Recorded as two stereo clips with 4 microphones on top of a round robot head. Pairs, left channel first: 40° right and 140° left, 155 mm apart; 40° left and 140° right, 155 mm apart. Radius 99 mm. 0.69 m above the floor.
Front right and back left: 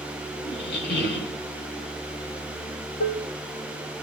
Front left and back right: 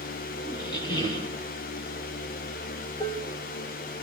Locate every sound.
0.5 s a squeak: 20° right, 3 m
3.0 s dishes clattering: 35° right, 1.0 m